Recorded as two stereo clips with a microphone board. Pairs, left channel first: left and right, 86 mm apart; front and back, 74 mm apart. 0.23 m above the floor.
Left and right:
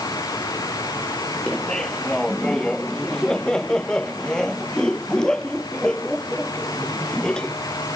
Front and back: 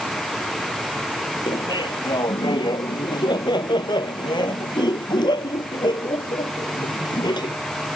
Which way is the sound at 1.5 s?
5° left.